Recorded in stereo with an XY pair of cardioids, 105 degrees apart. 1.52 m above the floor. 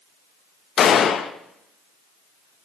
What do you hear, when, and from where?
0.8 s a gunshot: 55° left, 0.6 m